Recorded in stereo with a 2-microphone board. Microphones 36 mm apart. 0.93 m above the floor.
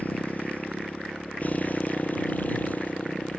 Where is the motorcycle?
50° left (ahead or behind).